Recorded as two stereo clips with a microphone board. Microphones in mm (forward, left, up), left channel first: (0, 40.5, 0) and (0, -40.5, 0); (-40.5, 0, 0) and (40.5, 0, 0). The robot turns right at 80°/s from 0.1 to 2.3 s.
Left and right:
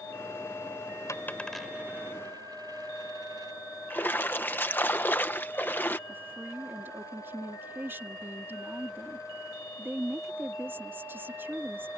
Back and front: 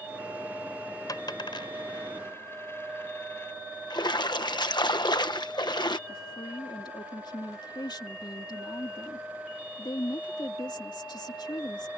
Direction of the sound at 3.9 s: 155° left.